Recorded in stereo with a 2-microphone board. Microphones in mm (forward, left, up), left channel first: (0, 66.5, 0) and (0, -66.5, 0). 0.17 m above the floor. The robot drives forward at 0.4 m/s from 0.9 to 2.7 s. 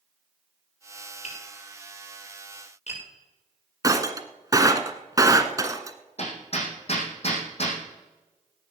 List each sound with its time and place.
1.2 s tapping: 55° left (ahead or behind), 7.5 m
3.8 s breaking glass: 25° right (ahead or behind), 1.2 m
6.2 s hammering: 50° left (ahead or behind), 5.5 m